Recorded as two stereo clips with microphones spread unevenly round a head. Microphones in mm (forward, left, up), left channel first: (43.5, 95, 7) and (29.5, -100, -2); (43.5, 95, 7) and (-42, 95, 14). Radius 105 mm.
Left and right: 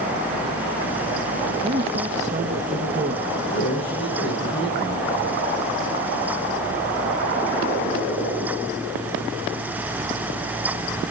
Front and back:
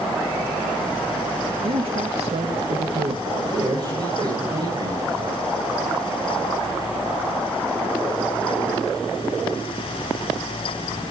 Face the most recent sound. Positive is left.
turn(degrees=145)